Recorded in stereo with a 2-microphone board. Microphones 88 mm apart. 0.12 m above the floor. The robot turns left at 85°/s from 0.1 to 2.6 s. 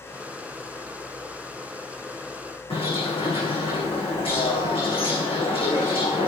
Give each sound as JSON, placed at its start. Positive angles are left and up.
{"t": 2.7, "sound": "a bird", "side_deg": 80, "distance_m": 7.0}